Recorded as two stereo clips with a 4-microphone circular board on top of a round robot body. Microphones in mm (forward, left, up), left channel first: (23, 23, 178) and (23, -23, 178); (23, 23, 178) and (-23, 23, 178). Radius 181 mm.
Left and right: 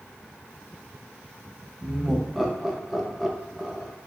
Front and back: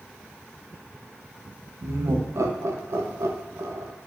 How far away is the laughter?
About 0.7 m.